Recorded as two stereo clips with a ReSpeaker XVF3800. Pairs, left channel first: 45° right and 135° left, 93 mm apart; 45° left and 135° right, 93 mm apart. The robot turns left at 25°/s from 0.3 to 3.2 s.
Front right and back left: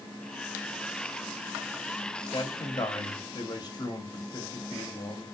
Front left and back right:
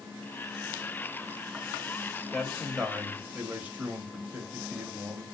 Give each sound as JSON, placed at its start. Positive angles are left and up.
{"t": 2.3, "sound": "a man speaking", "azimuth_deg": -40, "distance_m": 1.3}